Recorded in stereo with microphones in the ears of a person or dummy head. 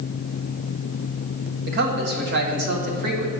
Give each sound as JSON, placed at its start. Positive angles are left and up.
{"t": 1.7, "sound": "a man speaking", "side_deg": -60, "distance_m": 1.3}